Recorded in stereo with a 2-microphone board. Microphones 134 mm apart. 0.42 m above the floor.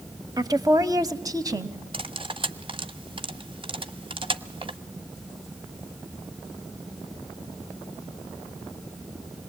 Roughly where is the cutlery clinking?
Right.